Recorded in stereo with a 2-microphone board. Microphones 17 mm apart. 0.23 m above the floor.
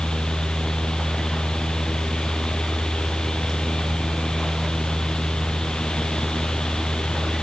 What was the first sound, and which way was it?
Only background noise.